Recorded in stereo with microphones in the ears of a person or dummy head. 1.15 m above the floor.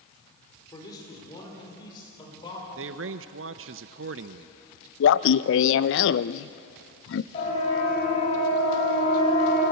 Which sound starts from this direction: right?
A man speaking, at 2.8 s.